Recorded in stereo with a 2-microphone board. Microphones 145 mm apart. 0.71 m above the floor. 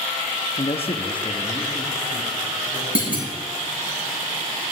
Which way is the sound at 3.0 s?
75° left (ahead or behind).